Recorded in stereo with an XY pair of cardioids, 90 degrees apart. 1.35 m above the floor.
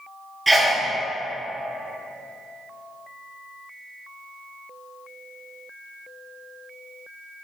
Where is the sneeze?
15° right, 0.7 m.